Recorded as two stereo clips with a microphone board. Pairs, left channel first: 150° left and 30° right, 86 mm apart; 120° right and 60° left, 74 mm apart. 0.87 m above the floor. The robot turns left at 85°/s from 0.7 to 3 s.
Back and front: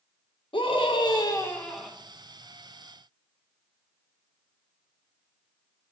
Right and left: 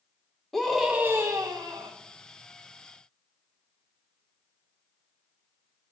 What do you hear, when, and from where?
0.5 s a scream: 155° left, 1.9 m; by 1.9 s 50° left, 1.9 m